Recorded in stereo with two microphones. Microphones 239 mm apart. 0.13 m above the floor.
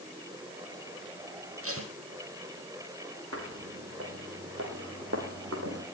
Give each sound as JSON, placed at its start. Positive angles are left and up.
{"t": 1.6, "sound": "tape being pulled", "side_deg": -65, "distance_m": 2.5}
{"t": 3.3, "sound": "footsteps", "side_deg": -70, "distance_m": 6.5}